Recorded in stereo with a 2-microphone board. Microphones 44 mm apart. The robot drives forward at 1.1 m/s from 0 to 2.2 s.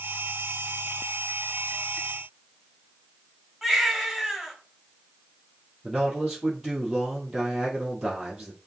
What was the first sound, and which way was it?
A baby crying, 5° right (ahead or behind).